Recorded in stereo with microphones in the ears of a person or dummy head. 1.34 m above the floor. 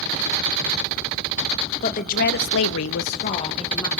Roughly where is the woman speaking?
Left.